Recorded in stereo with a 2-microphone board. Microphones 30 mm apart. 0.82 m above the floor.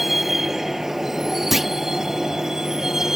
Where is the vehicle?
5° right (ahead or behind); by 3.2 s 15° right (ahead or behind).